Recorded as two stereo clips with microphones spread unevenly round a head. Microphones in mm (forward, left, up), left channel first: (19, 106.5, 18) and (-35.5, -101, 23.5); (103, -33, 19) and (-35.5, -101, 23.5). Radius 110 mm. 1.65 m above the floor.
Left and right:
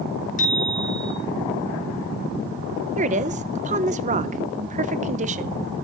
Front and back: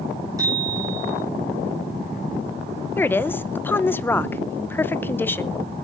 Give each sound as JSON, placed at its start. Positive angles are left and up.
{"t": 0.4, "sound": "a bicycle bell", "azimuth_deg": 130, "distance_m": 5.0}
{"t": 3.0, "sound": "a woman speaking", "azimuth_deg": -50, "distance_m": 1.0}